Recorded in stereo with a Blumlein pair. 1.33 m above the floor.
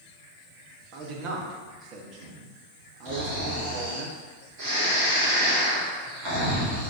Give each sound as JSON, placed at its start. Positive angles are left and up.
{"t": 0.9, "sound": "a man speaking", "azimuth_deg": -35, "distance_m": 0.9}
{"t": 3.0, "sound": "snoring", "azimuth_deg": -45, "distance_m": 1.3}